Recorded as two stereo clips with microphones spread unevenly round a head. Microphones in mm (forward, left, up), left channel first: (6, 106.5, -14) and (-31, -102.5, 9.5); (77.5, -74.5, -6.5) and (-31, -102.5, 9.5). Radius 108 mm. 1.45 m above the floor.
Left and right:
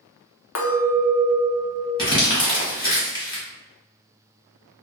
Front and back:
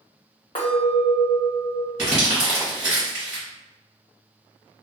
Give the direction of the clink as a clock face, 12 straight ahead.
10 o'clock.